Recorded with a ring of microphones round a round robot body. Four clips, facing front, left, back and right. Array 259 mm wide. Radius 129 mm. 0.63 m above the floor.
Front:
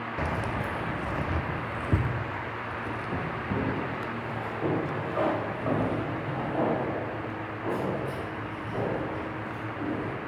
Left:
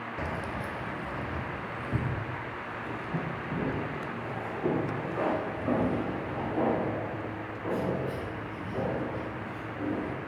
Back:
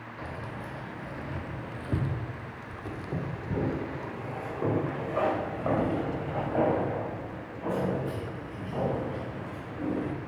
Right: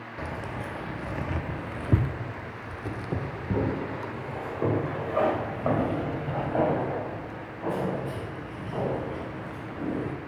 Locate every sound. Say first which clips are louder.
0.2 s keys jangling: right 1 dB, front 8 dB; 5° left, 0.8 m; by 10.1 s 110° right, 5 m